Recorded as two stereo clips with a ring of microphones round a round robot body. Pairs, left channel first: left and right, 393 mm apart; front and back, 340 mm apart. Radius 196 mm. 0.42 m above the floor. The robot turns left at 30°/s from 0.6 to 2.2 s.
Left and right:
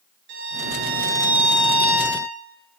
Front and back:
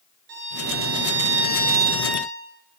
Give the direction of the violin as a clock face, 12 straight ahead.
4 o'clock.